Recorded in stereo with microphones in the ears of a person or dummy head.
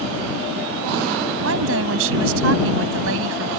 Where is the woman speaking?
80° right.